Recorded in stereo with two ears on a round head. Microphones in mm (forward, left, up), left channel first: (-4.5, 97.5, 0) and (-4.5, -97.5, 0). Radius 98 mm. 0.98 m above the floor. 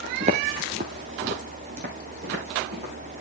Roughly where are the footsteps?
Right.